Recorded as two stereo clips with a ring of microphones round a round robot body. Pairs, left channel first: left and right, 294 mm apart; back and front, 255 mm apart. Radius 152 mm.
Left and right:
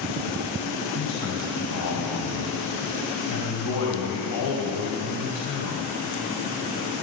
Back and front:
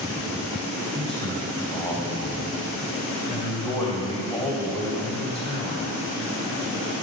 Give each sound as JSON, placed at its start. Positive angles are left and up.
{"t": 0.9, "sound": "a man speaking", "azimuth_deg": 115, "distance_m": 2.5}